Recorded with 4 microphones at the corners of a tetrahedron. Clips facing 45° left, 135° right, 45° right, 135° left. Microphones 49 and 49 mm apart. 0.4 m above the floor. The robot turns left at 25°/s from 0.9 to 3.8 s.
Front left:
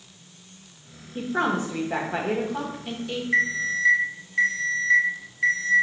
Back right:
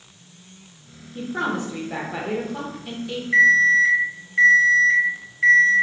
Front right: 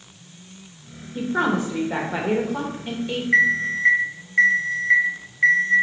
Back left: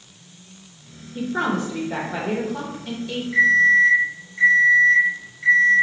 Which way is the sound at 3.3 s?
60° right.